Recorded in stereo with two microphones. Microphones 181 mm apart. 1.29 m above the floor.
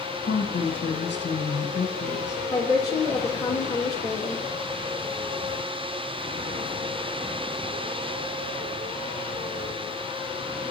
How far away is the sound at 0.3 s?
About 1.0 m.